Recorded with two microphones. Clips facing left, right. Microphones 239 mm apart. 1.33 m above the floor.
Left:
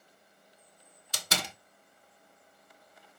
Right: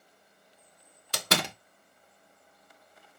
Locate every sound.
1.1 s a door slam: 70° right (ahead or behind), 0.5 m